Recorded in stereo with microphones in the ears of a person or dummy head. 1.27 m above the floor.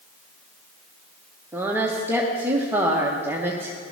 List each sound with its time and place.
1.5 s a woman speaking: 5° right (ahead or behind), 1.0 m